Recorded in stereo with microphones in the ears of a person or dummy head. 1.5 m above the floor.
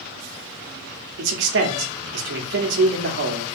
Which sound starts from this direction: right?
A man speaking, at 1.2 s.